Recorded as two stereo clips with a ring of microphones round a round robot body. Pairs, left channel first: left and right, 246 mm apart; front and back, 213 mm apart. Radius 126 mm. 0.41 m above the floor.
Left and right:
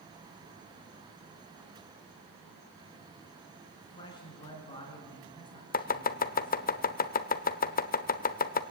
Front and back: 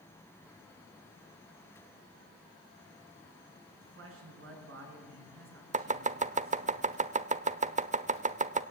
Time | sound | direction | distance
3.8 | a man speaking | 165° left | 5.5 m
5.7 | chopping | 135° left | 1.0 m